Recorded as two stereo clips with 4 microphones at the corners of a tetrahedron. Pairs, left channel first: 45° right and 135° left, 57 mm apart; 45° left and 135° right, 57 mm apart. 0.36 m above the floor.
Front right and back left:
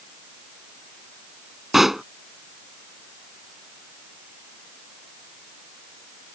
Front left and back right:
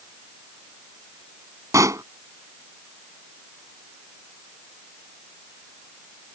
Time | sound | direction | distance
1.7 | a pop | 140° right | ?